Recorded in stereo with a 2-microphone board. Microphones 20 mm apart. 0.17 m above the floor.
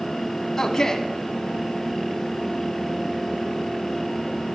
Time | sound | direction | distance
0.6 | a man speaking | 25° left (ahead or behind) | 1.2 m